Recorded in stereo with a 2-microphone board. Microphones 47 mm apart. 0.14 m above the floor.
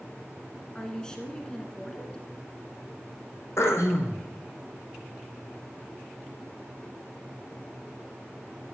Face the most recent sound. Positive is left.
turn(degrees=65)  # may be behind; listen again after turning